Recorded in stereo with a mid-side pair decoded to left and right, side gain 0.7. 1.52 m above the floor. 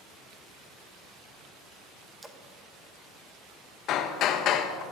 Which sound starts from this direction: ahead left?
Hammering, at 3.9 s.